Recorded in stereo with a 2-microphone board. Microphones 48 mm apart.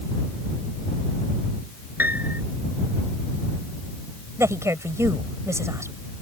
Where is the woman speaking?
80° right.